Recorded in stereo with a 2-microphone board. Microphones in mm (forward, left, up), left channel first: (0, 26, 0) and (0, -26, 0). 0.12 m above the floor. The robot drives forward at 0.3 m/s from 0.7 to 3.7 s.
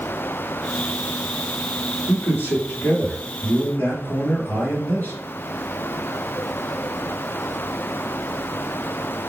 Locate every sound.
2.1 s a man speaking: 40° left (ahead or behind), 2 m